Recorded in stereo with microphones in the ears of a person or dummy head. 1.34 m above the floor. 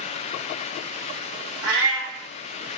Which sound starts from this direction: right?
A cat meowing, at 1.6 s.